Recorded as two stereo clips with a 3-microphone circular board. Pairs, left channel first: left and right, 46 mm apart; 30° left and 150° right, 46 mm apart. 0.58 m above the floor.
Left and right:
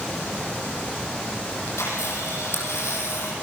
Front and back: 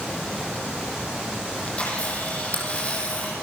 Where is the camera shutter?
90° left, 7 m.